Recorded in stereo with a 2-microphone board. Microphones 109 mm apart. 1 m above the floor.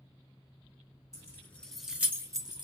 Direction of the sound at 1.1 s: 30° left (ahead or behind).